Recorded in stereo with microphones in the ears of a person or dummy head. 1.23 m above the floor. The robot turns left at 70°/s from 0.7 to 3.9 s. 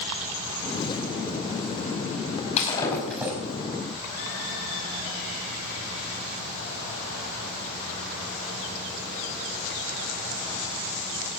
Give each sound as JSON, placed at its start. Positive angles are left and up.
{"t": 2.6, "sound": "breaking glass", "azimuth_deg": 40, "distance_m": 5.0}